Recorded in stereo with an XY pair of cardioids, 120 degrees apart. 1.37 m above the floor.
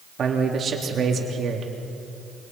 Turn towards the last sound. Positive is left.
turn(degrees=-40)